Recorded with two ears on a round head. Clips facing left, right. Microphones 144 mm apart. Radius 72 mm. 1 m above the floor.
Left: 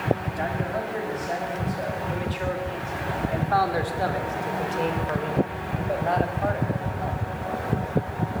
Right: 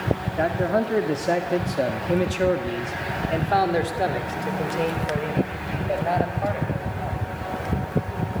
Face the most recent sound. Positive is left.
turn(degrees=-5)  # may be behind; listen again after turning